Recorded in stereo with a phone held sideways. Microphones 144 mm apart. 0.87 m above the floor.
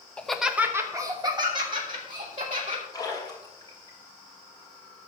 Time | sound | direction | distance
0.2 | laughter | 10° left (ahead or behind) | 0.8 m
2.9 | a splash | 25° left (ahead or behind) | 3 m